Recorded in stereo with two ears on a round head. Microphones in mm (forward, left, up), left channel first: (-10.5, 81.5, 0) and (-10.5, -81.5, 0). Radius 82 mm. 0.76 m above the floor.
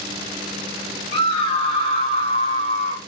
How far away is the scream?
About 1.6 m.